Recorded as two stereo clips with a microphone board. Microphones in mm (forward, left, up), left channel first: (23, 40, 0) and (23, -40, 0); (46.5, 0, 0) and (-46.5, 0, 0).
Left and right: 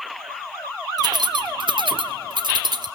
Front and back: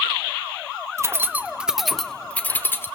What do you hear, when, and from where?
1.0 s keys jangling: 120° right, 0.8 m; by 2.9 s 65° right, 1.2 m